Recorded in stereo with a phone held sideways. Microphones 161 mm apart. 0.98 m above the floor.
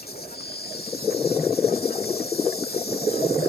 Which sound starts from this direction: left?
An insect, at 0.0 s.